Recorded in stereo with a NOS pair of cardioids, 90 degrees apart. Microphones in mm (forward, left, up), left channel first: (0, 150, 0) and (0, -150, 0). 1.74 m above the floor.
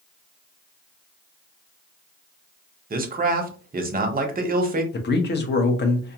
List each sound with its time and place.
2.9 s a man speaking: 30° right, 0.8 m
4.9 s a man speaking: 35° left, 0.8 m